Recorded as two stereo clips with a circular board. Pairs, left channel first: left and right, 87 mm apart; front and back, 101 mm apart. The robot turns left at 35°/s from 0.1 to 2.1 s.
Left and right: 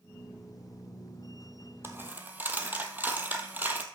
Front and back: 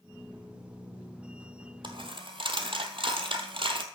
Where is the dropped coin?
150° right, 1.1 m; by 3.8 s 160° right, 1.1 m.